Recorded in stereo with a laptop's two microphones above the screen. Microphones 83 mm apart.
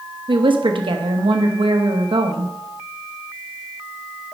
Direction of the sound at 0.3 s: 80° right.